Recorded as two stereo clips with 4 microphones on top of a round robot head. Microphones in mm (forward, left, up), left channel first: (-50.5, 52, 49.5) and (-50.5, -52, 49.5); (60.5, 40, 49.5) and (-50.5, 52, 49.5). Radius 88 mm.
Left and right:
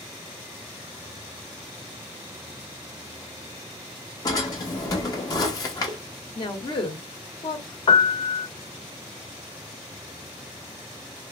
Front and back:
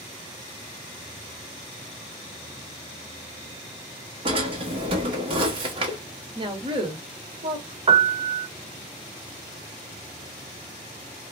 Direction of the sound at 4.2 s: 140° left.